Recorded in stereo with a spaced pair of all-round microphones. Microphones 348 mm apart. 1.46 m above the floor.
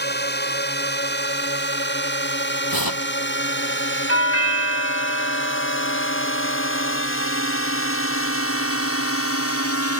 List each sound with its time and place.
0.0 s a drone: 30° left (ahead or behind); by 10.0 s 40° left (ahead or behind)
2.7 s tearing paper: 80° left
4.1 s a doorbell: 40° left (ahead or behind)